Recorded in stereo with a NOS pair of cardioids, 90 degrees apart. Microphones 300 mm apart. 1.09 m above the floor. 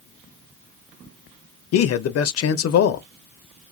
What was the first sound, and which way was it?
A man speaking, 55° left.